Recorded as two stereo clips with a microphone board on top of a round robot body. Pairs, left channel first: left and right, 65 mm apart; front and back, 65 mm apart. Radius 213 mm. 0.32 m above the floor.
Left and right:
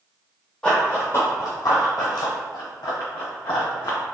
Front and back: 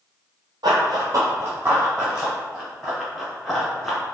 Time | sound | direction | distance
0.6 | running footsteps | 170° left | 0.7 m